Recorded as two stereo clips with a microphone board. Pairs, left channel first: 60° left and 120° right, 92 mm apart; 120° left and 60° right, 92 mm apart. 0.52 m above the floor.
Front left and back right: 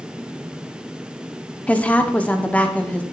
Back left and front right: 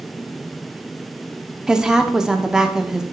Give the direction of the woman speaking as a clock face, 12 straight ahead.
12 o'clock.